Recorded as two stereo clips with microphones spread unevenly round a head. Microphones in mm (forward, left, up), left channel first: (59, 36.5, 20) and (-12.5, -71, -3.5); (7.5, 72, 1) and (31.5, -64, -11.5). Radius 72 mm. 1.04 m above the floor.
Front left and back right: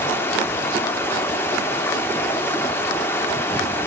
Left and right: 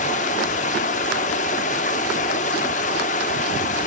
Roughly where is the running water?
Behind left.